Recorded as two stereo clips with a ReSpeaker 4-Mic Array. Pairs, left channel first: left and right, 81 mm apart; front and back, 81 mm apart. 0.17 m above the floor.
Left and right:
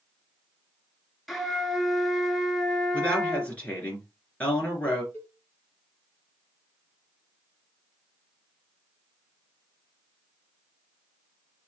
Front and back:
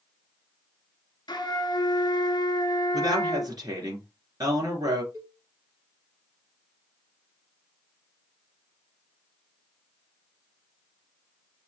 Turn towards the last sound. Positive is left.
turn(degrees=145)